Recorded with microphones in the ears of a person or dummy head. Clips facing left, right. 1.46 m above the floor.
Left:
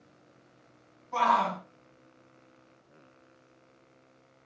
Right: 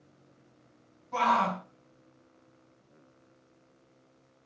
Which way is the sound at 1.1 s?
Centre (ahead or behind).